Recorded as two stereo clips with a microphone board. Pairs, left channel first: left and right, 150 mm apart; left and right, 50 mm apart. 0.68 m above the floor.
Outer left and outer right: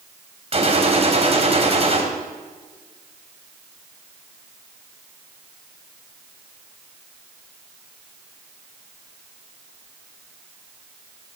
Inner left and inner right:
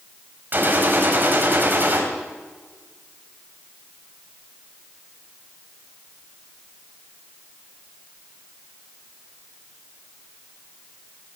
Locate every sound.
0.5 s a gunshot: 40° right (ahead or behind), 2.5 m